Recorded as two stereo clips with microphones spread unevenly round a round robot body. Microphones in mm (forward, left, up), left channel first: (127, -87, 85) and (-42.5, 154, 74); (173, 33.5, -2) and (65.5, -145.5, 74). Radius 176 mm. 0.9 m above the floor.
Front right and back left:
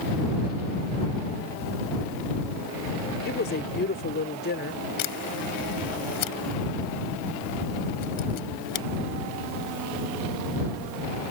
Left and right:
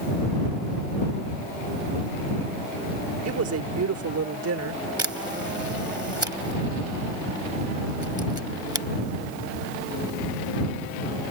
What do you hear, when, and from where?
3.2 s a woman speaking: 115° right
5.0 s a camera shutter: 45° right